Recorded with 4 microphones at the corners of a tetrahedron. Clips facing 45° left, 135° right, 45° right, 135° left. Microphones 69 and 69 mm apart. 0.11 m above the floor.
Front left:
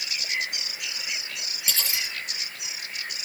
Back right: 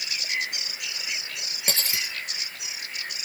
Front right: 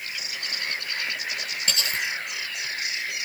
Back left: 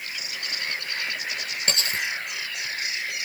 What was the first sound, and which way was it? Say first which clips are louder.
Cutlery clinking: back right 1 dB, back left 1 dB; 175° right.